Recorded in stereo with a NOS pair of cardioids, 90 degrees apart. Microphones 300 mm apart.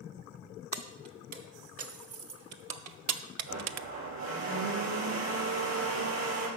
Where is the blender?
60° right, 4 m.